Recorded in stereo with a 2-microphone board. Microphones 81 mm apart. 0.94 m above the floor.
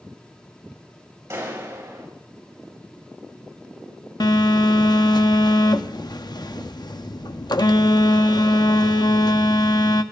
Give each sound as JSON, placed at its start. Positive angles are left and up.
{"t": 1.3, "sound": "a clap", "side_deg": -35, "distance_m": 4.5}
{"t": 4.2, "sound": "a phone buzzing", "side_deg": 60, "distance_m": 0.7}